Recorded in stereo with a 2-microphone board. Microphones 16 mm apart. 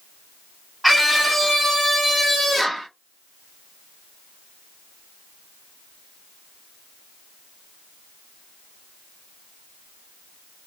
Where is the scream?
5° right (ahead or behind), 1.3 m; by 2.9 s 10° left (ahead or behind), 1.5 m.